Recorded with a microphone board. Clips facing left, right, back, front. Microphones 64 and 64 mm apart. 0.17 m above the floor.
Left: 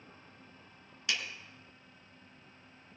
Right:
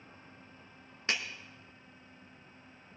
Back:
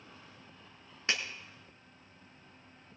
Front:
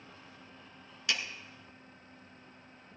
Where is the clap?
130° right, 1.8 m.